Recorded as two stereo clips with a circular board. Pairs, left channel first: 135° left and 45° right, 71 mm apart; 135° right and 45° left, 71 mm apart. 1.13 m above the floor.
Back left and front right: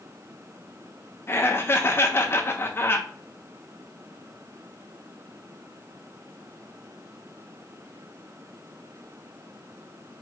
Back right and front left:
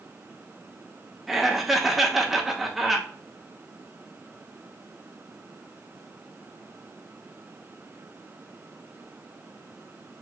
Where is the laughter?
130° left, 0.7 m.